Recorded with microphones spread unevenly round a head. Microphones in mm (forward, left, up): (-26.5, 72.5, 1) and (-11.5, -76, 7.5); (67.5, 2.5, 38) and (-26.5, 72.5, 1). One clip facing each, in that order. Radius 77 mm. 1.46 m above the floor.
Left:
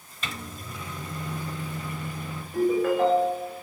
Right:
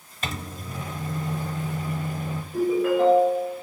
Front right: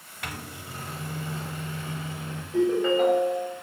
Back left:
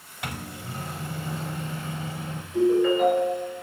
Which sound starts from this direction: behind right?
A microwave, at 0.2 s.